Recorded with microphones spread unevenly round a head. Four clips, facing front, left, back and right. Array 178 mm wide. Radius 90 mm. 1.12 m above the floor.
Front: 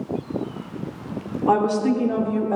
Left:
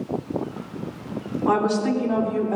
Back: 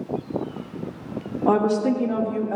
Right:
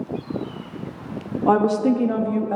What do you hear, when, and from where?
1.5 s a woman speaking: 130° right, 1.5 m; by 2.6 s 75° right, 1.9 m